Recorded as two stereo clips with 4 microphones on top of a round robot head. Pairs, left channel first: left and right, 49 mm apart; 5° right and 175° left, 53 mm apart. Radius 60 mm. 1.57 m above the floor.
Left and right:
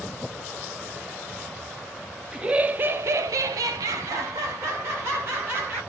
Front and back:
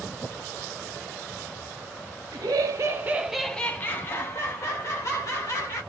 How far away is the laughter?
About 0.7 m.